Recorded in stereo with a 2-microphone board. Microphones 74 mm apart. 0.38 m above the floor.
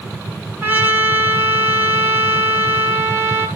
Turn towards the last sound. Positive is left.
turn(degrees=-30)  # may be behind; listen again after turning